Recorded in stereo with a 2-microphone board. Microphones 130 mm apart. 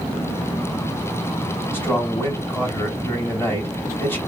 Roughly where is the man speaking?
Centre.